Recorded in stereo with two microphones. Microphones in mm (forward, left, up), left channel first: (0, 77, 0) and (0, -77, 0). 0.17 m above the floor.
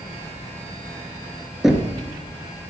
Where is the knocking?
Centre (ahead or behind), 2.0 m.